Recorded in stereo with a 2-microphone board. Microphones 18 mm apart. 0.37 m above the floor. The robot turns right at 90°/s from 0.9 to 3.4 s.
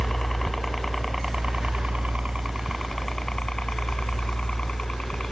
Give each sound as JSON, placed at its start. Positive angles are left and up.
{"t": 0.0, "sound": "a helicopter", "side_deg": 15}